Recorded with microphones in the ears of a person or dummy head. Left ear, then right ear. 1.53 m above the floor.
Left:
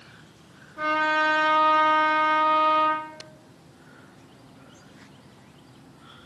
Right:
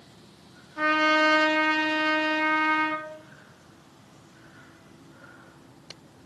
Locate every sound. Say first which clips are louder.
0.8 s a trumpet: right 1 dB; 70° right (ahead or behind), 0.7 m